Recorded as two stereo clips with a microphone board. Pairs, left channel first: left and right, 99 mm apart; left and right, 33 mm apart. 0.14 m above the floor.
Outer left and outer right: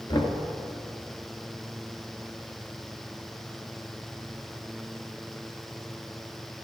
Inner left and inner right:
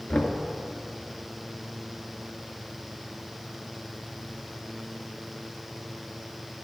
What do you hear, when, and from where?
0.1 s knocking: 45° left (ahead or behind), 2 m